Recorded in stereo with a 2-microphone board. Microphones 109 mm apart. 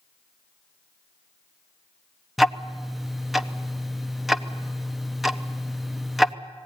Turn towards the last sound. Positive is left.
turn(degrees=0)  # may be behind; listen again after turning